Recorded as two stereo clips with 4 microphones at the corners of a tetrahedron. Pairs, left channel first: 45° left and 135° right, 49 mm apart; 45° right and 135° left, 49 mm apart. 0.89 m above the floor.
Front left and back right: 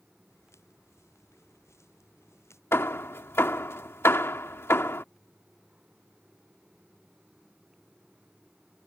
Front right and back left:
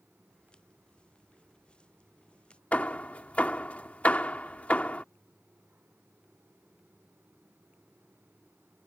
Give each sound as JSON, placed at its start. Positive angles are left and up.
{"t": 0.3, "sound": "footsteps", "azimuth_deg": 25}
{"t": 2.7, "sound": "hammering", "azimuth_deg": 15}